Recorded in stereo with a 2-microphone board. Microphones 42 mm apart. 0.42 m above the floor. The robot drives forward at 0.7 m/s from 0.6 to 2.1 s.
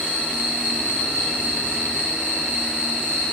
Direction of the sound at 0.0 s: 50° right (ahead or behind).